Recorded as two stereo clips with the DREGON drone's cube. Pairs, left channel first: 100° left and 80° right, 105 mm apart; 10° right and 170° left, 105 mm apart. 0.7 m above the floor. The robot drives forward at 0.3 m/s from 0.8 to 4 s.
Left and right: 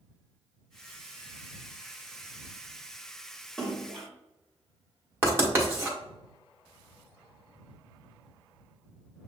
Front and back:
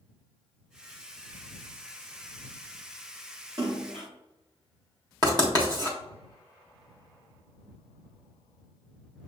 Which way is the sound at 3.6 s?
Straight behind.